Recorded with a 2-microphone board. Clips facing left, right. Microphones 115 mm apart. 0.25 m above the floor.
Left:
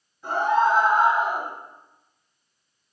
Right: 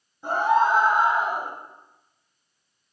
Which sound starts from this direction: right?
A scream, at 0.2 s.